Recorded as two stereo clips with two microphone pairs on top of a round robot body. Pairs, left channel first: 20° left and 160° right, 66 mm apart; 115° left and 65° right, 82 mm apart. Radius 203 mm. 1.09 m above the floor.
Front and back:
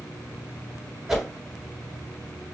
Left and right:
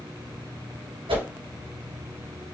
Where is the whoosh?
70° right, 2.5 m.